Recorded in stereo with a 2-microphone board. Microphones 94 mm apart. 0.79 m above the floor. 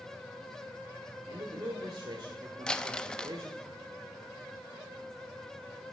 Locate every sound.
1.3 s a man speaking: 75° right (ahead or behind), 1.9 m
2.7 s crumpling: 10° left (ahead or behind), 0.6 m